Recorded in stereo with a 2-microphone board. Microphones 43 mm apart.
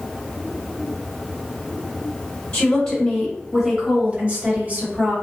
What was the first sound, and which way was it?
A woman speaking, 20° left (ahead or behind).